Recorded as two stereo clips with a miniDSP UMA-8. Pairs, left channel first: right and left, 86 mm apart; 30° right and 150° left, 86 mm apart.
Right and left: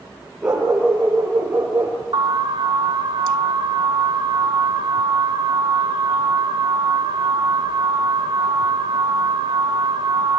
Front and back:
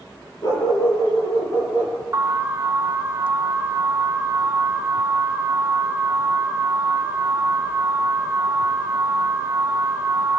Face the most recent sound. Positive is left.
turn(degrees=95)